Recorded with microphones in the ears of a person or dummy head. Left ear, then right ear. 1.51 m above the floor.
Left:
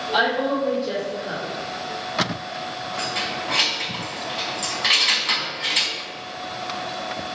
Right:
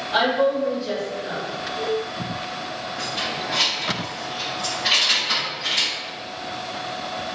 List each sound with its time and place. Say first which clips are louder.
0.1 s a woman speaking: right 2 dB; 55° right (ahead or behind), 1.8 m
3.0 s keys jangling: left 1 dB; 35° left (ahead or behind), 0.9 m